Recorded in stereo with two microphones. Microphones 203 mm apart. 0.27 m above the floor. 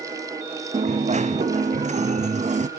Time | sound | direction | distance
0.7 | a dropped coin | 35° right (ahead or behind) | 1.1 m